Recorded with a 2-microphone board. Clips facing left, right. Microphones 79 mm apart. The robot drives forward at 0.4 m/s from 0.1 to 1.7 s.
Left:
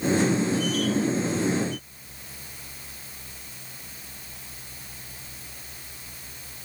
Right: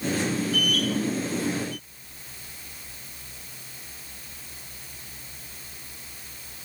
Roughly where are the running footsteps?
I don't hear running footsteps.